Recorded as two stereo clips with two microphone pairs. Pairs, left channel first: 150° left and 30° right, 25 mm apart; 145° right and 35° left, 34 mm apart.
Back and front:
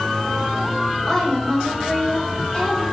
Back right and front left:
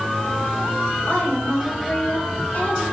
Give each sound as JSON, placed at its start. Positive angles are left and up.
{"t": 1.1, "sound": "a woman speaking", "azimuth_deg": -150, "distance_m": 3.0}